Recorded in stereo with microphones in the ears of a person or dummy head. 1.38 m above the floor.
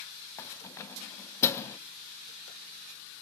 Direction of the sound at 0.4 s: 20° left (ahead or behind).